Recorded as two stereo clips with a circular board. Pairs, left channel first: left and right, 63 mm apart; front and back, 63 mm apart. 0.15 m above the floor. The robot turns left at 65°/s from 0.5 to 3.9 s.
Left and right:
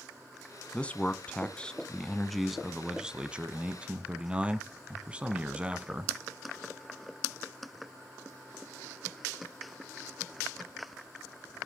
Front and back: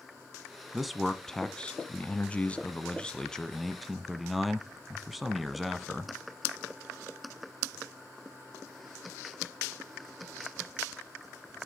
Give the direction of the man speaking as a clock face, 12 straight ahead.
8 o'clock.